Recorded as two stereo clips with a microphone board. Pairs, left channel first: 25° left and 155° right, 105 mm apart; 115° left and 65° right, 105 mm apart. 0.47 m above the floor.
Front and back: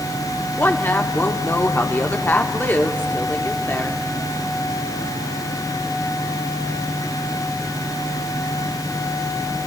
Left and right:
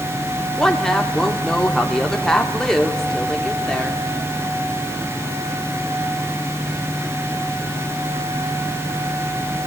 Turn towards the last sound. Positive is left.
turn(degrees=35)